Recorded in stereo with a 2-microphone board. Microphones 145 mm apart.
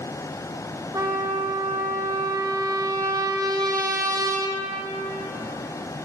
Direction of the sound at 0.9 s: 25° right (ahead or behind).